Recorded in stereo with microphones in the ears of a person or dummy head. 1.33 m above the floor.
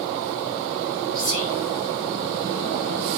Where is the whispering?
20° right (ahead or behind), 3.5 m.